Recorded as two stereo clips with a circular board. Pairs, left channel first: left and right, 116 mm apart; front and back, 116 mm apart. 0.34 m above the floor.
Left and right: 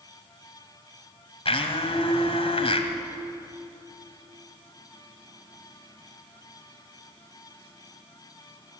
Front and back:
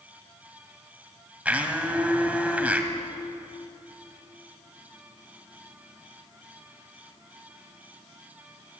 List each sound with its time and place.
1.4 s a blender: 105° left, 1.9 m